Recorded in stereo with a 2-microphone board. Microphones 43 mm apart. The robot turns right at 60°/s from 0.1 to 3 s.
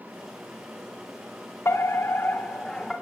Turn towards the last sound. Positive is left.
turn(degrees=175)